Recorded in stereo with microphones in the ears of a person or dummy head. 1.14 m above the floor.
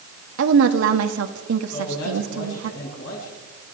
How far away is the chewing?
I don't hear chewing.